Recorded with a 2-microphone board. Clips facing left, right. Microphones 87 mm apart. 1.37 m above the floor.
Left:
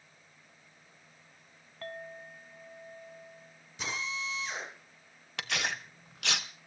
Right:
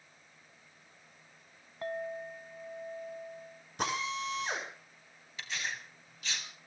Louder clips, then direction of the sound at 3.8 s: Right 4 dB; 55° right (ahead or behind).